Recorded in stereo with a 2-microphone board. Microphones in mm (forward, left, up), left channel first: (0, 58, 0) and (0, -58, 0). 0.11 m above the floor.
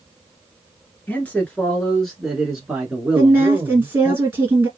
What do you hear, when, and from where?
1.1 s a man speaking: 15° left (ahead or behind), 1.3 m; by 4.2 s 20° right (ahead or behind), 1.4 m
3.1 s a woman speaking: 20° right (ahead or behind), 1.8 m